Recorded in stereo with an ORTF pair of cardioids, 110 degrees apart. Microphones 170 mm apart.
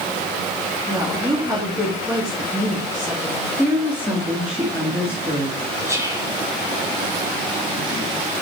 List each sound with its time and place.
0.9 s a woman speaking: 15° right, 2.5 m
3.6 s a woman speaking: 5° right, 1.6 m
5.9 s whispering: 20° right, 3 m